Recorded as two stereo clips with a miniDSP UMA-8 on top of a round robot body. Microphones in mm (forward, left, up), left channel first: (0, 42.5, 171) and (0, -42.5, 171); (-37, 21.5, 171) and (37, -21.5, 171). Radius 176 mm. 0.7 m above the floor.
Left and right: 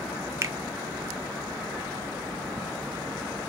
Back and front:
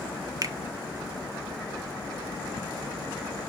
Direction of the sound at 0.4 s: 50° right.